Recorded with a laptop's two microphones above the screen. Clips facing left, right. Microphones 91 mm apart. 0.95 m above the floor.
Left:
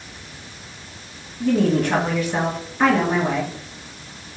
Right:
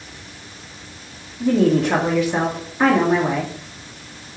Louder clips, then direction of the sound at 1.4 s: Right 2 dB; 10° right (ahead or behind).